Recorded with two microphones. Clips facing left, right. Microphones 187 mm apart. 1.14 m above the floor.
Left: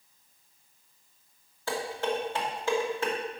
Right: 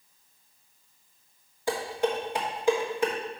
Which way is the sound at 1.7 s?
15° right (ahead or behind).